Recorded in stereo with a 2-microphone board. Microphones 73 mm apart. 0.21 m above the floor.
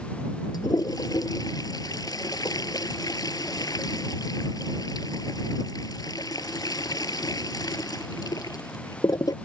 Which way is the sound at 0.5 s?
65° left (ahead or behind).